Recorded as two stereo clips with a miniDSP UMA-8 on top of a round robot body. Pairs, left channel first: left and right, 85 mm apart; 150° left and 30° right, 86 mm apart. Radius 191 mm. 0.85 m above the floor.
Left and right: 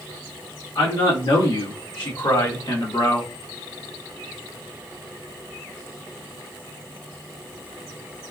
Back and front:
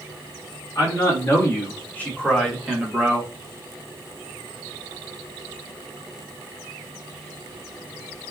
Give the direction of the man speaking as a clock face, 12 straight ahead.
9 o'clock.